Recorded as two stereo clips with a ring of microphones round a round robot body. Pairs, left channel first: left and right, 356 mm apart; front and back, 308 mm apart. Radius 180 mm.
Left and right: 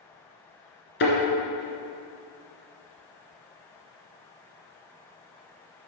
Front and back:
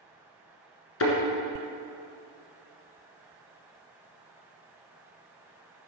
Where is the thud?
35° left, 1.6 m.